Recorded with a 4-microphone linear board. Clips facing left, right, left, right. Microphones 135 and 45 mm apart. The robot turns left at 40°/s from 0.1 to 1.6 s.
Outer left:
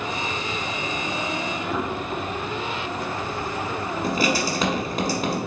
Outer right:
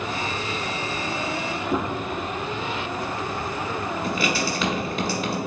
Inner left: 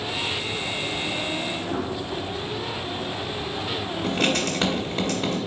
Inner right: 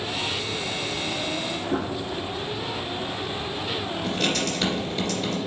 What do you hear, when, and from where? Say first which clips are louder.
1.7 s a gunshot: outer right 3 dB, inner right 3 dB; 25° right (ahead or behind), 1.6 m
4.0 s writing: outer left 4 dB, inner left 3 dB; 40° left (ahead or behind), 1.3 m